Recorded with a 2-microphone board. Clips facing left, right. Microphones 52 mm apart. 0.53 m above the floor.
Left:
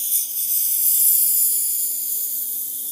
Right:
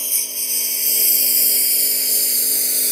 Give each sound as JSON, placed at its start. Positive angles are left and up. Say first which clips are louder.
{"t": 0.0, "sound": "a lawn mower", "louder": "right 7 dB", "side_deg": -55}